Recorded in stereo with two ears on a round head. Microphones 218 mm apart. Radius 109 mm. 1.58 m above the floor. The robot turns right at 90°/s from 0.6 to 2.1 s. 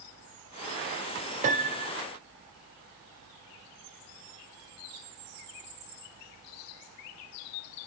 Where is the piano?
70° right, 0.5 m; by 2.0 s 25° right, 0.5 m.